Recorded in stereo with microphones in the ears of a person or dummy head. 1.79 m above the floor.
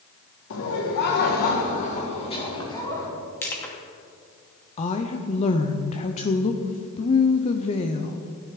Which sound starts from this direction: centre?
Crushing, at 3.4 s.